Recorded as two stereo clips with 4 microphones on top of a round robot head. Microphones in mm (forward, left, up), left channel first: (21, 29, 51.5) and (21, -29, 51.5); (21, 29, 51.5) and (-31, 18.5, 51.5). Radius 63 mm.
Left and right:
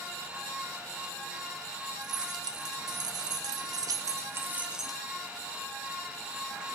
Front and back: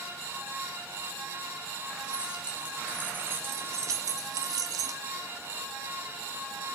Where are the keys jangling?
90° right, 3.5 m; by 5.0 s straight behind, 1.6 m.